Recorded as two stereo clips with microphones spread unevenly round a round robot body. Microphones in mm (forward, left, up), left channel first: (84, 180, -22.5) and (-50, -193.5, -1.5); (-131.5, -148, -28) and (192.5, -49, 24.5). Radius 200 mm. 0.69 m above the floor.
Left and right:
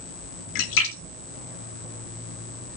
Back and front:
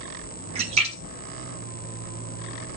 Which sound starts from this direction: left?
A splash, at 0.6 s.